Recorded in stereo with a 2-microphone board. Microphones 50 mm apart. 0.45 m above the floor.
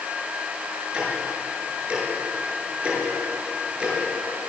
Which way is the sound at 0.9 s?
25° right (ahead or behind).